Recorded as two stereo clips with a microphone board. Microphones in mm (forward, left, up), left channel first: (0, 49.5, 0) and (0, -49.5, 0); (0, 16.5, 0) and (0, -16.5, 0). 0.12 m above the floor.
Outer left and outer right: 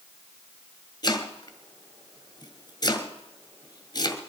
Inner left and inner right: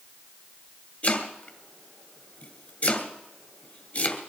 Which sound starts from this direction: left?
Chopping, at 1.0 s.